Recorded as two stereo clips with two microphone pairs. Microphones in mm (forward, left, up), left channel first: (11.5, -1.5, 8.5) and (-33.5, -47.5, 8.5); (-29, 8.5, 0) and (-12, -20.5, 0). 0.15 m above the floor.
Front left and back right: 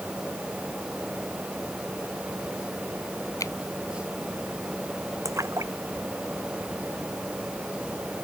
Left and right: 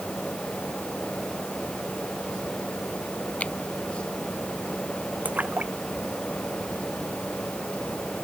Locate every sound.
3.4 s a finger snap: 75° left
5.2 s a splash: 95° right